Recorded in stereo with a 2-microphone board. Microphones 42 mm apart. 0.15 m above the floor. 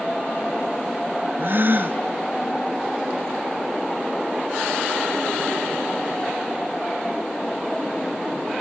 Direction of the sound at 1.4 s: 55° right (ahead or behind).